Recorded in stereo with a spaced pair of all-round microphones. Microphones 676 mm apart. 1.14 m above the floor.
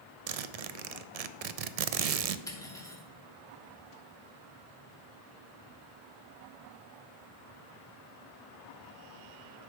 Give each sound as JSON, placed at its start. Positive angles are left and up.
{"t": 0.3, "sound": "a zipper", "side_deg": -65, "distance_m": 0.5}
{"t": 2.5, "sound": "cutlery clinking", "side_deg": 5, "distance_m": 1.4}